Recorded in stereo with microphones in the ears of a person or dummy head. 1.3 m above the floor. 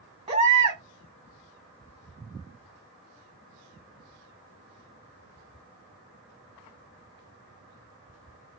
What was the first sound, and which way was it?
A baby crying, 20° right (ahead or behind).